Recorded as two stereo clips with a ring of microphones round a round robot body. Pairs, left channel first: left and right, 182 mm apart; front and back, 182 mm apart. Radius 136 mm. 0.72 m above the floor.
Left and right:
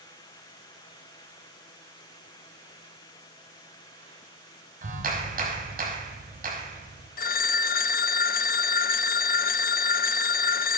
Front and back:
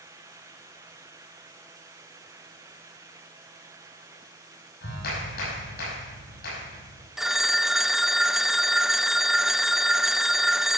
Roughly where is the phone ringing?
Left.